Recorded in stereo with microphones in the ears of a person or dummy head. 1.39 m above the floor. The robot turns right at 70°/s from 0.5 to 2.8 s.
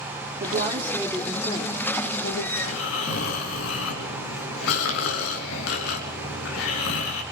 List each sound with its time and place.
0.4 s a woman speaking: 45° right, 3 m; by 2.5 s 90° left, 3 m
2.6 s snoring: 75° left (ahead or behind), 5 m